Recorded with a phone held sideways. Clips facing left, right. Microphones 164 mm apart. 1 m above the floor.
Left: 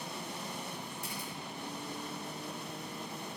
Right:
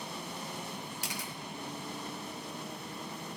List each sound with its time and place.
1.0 s a camera shutter: 85° right, 1.5 m